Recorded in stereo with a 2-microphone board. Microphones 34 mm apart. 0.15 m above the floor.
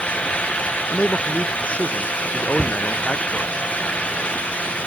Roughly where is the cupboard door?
Right.